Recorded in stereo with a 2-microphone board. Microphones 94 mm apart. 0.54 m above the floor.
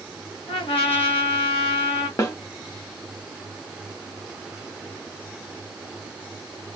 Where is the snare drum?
35° left (ahead or behind), 0.9 m.